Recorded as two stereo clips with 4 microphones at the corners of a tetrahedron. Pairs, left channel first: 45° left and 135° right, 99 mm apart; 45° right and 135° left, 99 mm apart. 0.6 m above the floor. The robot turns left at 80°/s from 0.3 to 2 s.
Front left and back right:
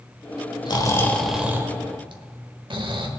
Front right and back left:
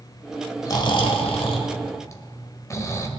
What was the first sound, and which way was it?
Snoring, 5° left.